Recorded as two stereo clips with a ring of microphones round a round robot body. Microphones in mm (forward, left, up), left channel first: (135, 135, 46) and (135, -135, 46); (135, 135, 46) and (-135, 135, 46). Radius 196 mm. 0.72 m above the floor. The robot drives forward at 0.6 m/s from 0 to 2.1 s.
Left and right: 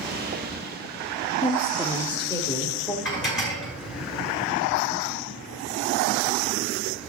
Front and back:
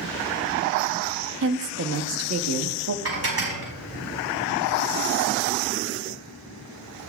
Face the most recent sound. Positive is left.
turn(degrees=150)